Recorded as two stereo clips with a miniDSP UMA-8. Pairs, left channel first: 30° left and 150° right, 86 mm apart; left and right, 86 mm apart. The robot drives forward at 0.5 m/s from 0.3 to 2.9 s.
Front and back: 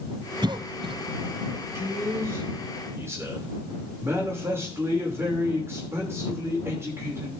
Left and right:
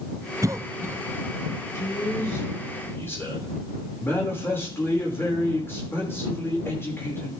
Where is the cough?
135° right, 0.5 m; by 1.0 s 155° right, 0.7 m.